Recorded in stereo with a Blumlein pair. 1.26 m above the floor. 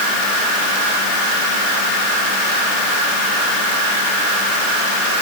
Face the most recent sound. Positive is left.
No sound to turn to.